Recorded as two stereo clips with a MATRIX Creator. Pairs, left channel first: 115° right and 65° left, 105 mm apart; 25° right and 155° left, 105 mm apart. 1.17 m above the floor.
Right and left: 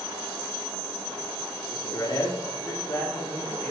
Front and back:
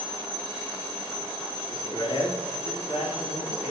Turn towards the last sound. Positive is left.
turn(degrees=-35)